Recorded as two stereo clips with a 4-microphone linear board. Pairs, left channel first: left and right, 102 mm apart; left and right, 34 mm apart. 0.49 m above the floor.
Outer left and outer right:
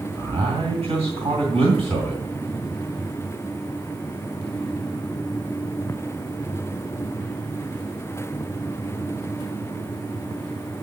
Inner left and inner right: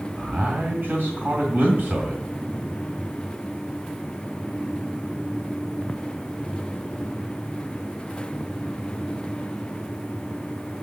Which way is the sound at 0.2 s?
75° right (ahead or behind).